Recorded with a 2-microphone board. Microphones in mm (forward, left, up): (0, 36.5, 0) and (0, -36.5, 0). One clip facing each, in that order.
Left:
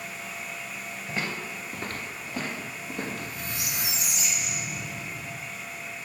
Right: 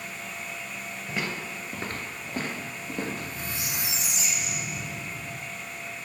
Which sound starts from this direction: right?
A squeak, at 3.1 s.